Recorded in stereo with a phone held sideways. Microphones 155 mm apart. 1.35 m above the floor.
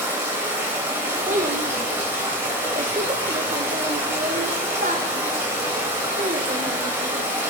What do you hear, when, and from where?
0.0 s running water: 15° right (ahead or behind), 3 m
1.3 s a child speaking: 60° right (ahead or behind), 0.7 m